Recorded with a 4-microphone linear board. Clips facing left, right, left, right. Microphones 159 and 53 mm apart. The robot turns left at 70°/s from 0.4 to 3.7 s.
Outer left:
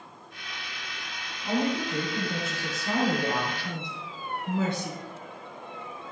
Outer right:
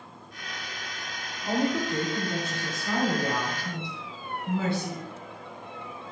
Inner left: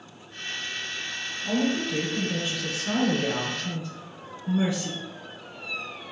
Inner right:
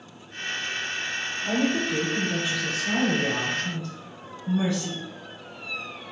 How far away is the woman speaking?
About 1.1 m.